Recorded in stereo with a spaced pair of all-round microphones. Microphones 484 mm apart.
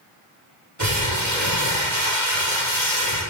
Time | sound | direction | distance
0.8 | crumpling | 35° right (ahead or behind) | 1.1 m